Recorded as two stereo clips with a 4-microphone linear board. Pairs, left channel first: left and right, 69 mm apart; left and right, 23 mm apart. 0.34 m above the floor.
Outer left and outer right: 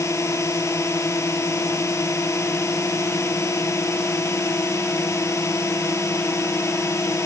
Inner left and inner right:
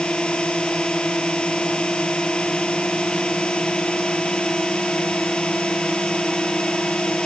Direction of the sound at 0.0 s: 40° left (ahead or behind).